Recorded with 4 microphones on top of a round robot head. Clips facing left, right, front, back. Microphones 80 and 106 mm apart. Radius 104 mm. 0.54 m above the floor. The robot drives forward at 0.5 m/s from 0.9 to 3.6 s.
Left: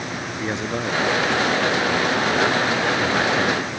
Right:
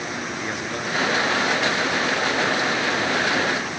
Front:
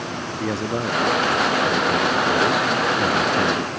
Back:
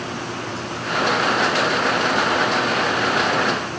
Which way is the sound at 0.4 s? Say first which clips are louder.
Left 3 dB, front 5 dB; 30° left.